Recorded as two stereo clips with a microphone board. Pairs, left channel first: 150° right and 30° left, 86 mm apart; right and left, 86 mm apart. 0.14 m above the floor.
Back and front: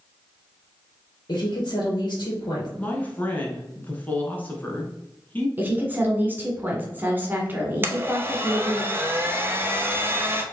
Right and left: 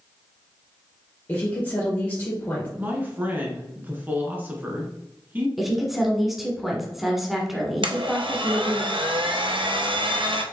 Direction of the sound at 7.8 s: 90° left.